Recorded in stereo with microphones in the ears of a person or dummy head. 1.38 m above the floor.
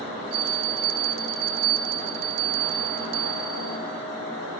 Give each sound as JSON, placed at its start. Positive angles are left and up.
{"t": 0.3, "sound": "a bell", "side_deg": -85, "distance_m": 1.1}